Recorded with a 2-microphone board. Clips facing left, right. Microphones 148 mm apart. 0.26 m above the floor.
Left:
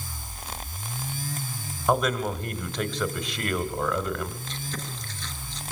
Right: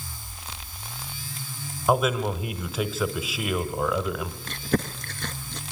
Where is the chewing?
60° right (ahead or behind), 0.8 m.